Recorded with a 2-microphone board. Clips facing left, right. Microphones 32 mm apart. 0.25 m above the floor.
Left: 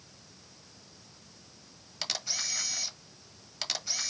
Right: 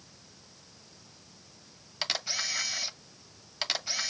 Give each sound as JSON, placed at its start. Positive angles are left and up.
{"t": 2.0, "sound": "a camera shutter", "side_deg": -20, "distance_m": 1.1}